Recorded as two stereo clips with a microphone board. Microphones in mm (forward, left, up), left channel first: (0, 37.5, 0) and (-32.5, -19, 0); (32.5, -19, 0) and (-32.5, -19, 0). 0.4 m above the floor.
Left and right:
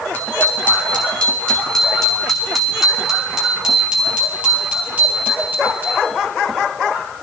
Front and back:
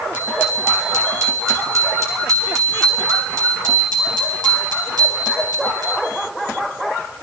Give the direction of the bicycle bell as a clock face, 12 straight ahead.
8 o'clock.